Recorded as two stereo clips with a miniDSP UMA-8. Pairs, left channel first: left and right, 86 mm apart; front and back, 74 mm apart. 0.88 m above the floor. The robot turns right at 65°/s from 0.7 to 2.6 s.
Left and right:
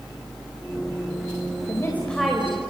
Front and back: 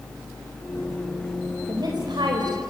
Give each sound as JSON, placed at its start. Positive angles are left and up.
{"t": 1.7, "sound": "a woman speaking", "azimuth_deg": 140, "distance_m": 4.0}